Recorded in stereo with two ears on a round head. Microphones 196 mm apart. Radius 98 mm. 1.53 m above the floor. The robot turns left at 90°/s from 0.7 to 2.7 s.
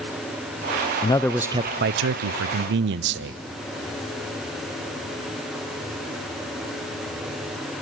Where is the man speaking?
25° left, 0.5 m; by 3.4 s 125° right, 0.5 m.